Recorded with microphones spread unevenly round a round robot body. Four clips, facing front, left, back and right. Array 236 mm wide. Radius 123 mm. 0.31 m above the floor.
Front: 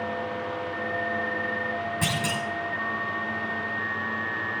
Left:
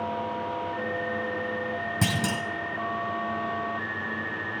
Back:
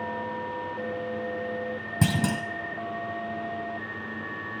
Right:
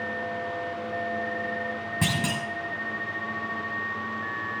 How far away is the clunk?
About 1.1 m.